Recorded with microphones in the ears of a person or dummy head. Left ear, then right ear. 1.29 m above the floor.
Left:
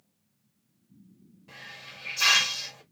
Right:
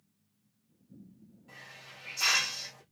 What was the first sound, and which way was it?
A hiss, 20° left (ahead or behind).